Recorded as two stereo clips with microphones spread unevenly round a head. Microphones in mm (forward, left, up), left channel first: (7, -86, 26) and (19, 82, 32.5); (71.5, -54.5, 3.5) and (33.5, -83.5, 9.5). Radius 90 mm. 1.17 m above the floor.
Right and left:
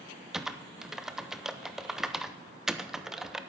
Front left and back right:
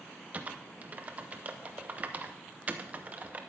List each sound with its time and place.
0.3 s typing on a keyboard: 175° left, 0.6 m